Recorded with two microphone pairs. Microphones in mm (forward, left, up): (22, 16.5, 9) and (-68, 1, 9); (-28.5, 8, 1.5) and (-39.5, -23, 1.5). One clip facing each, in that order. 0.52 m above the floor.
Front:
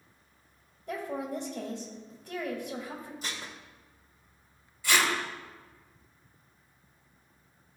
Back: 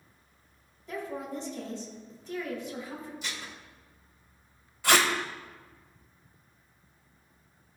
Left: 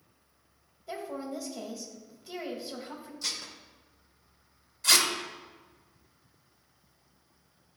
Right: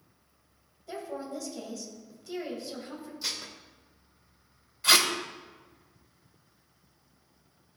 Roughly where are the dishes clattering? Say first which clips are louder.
Even, even; ahead right.